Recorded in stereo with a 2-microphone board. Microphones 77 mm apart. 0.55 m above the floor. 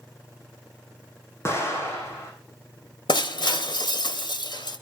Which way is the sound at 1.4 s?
35° left (ahead or behind).